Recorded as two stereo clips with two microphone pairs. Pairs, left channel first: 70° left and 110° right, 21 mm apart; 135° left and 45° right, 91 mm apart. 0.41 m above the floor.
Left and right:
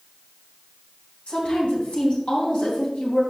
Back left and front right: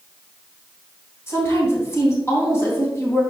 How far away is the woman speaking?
About 3 m.